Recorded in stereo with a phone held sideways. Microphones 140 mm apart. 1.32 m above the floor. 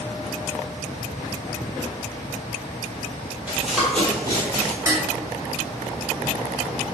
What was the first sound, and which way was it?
Running footsteps, 10° right (ahead or behind).